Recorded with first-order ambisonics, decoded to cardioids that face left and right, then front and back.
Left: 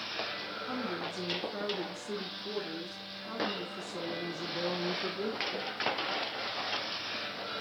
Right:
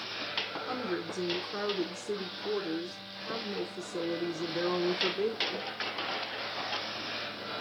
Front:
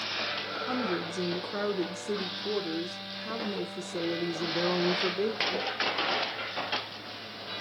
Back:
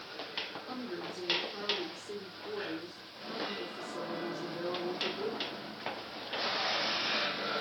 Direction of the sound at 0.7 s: 20° right.